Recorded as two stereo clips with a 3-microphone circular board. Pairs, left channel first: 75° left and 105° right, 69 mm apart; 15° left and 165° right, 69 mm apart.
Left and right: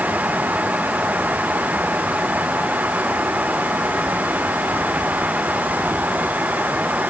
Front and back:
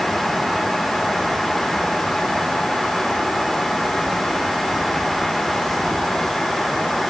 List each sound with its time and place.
Only background noise.